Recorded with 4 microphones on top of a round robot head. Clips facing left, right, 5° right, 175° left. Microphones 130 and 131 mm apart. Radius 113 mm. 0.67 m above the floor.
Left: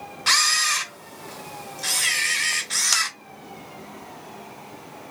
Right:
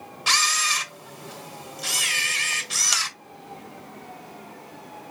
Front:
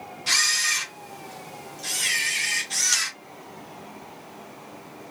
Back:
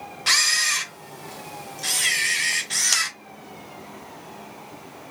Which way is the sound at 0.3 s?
165° right.